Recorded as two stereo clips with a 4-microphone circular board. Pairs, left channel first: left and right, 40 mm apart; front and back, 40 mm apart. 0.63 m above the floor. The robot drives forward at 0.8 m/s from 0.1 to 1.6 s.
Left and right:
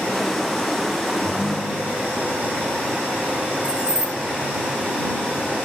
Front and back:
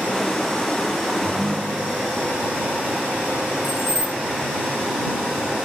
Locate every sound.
1.2 s a ringtone: 150° left, 4 m; by 2.2 s 155° left, 4 m
3.6 s keys jangling: 155° left, 3 m